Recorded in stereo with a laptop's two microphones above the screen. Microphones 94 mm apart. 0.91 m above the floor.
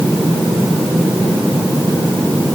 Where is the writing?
I don't hear writing.